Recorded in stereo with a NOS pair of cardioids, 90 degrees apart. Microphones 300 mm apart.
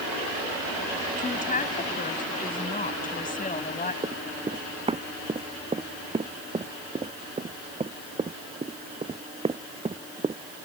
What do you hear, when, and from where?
1.2 s a woman speaking: 25° left
4.0 s running footsteps: 20° right